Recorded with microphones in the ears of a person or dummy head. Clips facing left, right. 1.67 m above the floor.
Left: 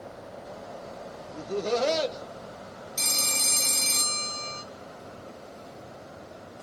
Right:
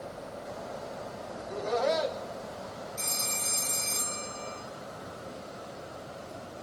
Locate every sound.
1.3 s laughter: 45° left (ahead or behind), 1.5 m
3.0 s a phone ringing: 50° left (ahead or behind), 1.1 m